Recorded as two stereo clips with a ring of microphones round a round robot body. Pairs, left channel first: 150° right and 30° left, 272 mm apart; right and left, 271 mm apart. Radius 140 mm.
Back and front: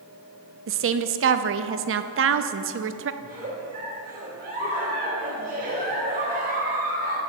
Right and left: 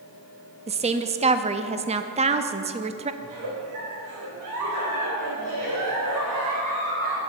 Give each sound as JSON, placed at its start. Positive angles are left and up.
{"t": 0.7, "sound": "a woman speaking", "azimuth_deg": 30, "distance_m": 0.6}
{"t": 3.2, "sound": "a giggle", "azimuth_deg": 90, "distance_m": 3.0}